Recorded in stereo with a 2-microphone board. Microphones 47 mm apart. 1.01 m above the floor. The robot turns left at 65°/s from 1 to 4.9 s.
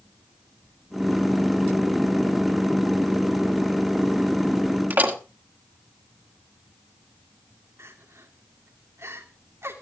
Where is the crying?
70° right (ahead or behind), 2.5 m.